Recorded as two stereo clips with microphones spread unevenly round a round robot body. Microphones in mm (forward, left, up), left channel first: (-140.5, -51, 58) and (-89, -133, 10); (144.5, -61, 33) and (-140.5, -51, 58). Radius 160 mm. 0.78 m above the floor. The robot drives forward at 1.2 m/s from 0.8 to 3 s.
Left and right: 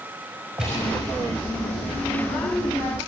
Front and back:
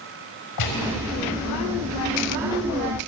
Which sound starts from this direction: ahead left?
A gunshot, at 0.6 s.